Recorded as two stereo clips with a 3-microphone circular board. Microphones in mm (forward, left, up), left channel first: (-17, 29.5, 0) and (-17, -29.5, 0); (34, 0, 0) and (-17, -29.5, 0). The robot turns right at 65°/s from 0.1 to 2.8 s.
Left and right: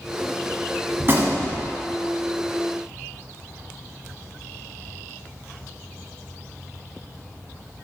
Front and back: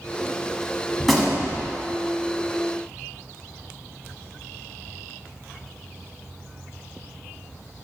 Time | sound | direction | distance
1.0 | a gunshot | 65° right | 1.2 m